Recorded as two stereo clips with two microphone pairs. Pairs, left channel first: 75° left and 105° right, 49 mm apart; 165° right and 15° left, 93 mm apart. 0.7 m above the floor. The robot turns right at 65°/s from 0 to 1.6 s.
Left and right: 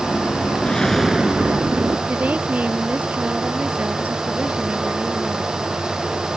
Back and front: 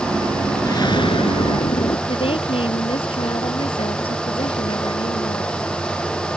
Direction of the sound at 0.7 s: 145° left.